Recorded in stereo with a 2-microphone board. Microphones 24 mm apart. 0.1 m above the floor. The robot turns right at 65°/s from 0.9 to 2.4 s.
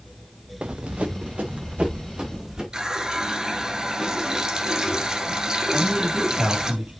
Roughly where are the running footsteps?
Right.